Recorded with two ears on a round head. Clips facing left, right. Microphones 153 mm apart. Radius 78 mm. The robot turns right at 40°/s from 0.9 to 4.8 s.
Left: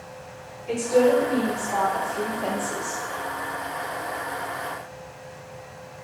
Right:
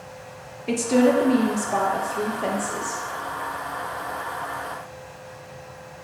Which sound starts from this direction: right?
A woman speaking, at 0.7 s.